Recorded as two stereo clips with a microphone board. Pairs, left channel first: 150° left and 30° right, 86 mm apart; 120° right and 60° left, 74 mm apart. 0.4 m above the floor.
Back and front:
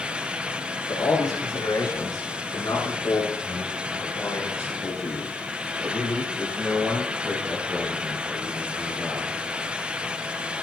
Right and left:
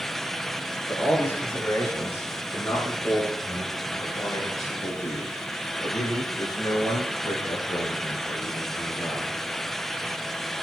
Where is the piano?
I don't hear a piano.